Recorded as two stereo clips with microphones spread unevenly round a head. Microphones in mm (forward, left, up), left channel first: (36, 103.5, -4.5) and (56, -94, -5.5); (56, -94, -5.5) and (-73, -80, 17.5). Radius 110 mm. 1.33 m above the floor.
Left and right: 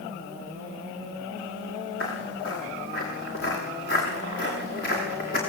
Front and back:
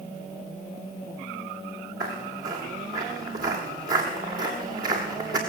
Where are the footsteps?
145° left, 9.5 m; by 5.4 s 150° left, 7.5 m.